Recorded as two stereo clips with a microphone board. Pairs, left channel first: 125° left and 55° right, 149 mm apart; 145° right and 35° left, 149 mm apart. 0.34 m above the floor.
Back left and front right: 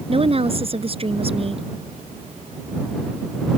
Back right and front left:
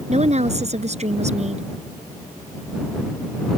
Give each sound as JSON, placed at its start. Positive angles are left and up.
{"t": 0.1, "sound": "a woman speaking", "azimuth_deg": -5}